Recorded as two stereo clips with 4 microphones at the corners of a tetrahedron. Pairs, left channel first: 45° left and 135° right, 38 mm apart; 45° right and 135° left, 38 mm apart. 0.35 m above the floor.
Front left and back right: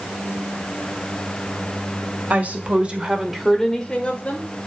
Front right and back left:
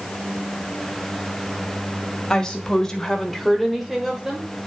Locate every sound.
2.3 s a woman speaking: 110° right, 1.9 m; by 4.5 s 65° left, 1.7 m